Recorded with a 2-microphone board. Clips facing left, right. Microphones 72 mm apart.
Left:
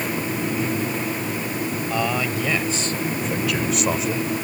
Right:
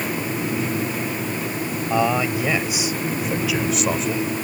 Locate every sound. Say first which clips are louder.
1.9 s a man speaking: right 5 dB; 15° right (ahead or behind); by 4.3 s 5° left (ahead or behind)